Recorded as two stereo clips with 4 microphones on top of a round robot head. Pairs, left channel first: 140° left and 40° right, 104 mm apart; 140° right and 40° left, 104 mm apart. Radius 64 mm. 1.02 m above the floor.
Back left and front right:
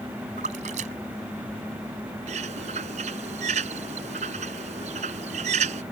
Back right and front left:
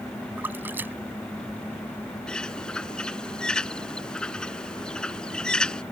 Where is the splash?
30° right.